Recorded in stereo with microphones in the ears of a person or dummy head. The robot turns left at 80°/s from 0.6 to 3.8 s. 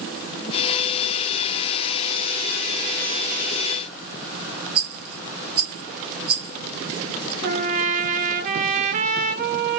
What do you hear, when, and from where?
4.8 s a rattle: 30° right (ahead or behind), 1.0 m
7.4 s a trumpet: 45° right (ahead or behind), 0.7 m